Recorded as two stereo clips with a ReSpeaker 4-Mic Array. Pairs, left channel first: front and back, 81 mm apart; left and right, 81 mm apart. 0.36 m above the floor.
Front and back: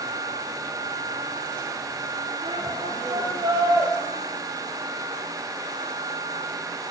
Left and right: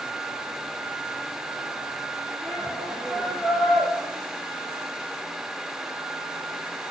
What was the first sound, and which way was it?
A shout, 165° left.